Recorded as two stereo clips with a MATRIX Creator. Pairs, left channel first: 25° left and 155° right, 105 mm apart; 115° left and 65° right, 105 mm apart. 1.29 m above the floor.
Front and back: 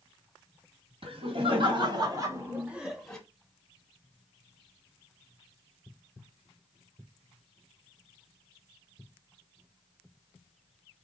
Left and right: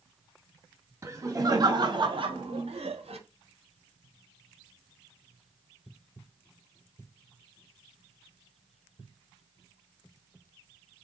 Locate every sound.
1.0 s laughter: 130° right, 2 m; by 3.2 s 60° right, 1.4 m